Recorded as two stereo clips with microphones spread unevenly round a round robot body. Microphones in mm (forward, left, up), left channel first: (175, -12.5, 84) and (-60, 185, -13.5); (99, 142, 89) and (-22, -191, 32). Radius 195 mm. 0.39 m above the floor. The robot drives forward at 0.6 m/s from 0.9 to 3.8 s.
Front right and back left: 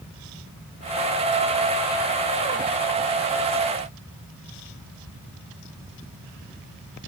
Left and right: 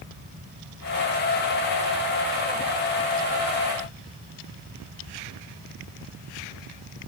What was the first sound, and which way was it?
Only background noise.